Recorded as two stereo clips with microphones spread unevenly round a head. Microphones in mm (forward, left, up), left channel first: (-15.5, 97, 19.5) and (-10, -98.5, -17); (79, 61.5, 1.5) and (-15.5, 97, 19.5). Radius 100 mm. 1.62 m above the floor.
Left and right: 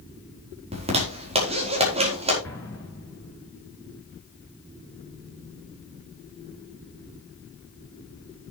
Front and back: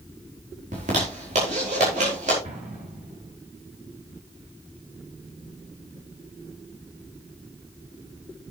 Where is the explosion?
170° left, 7 m.